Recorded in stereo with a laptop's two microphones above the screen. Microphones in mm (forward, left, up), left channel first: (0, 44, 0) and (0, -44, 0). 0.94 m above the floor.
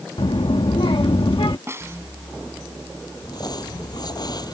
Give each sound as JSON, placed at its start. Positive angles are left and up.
{"t": 0.2, "sound": "a child speaking", "side_deg": 70}
{"t": 1.7, "sound": "a snare drum", "side_deg": -30}
{"t": 3.2, "sound": "crumpling", "side_deg": 50}